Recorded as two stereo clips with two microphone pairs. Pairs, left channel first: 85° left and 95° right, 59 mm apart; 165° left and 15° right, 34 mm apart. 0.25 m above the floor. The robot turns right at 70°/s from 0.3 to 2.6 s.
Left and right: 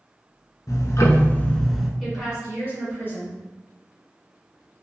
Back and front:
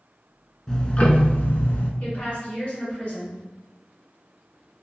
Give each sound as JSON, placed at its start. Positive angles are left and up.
{"t": 0.7, "sound": "ticking", "azimuth_deg": 95, "distance_m": 0.5}
{"t": 2.0, "sound": "a woman speaking", "azimuth_deg": 170, "distance_m": 1.9}